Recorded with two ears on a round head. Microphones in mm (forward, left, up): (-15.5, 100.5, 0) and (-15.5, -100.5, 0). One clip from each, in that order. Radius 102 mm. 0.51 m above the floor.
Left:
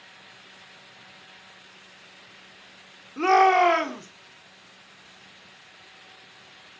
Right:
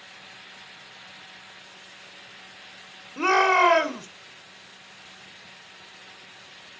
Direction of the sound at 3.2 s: 5° right (ahead or behind).